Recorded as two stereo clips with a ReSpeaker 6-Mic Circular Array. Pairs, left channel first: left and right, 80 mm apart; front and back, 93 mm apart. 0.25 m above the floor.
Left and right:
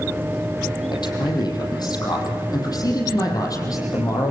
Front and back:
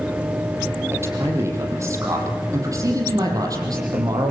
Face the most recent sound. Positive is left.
turn(degrees=135)